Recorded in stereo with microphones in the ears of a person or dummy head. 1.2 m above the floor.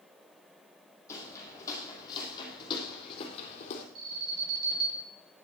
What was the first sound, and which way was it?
Footsteps, 15° left (ahead or behind).